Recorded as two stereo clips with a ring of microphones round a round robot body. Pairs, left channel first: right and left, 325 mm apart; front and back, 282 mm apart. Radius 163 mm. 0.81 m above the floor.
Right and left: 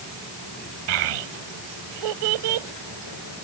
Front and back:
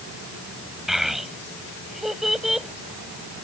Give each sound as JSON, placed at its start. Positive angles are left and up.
{"t": 0.9, "sound": "a child speaking", "azimuth_deg": 90}